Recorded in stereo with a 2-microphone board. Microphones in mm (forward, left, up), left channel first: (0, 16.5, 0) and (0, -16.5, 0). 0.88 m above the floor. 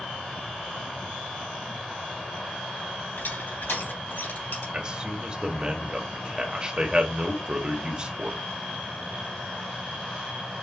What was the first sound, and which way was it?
Crushing, 85° left.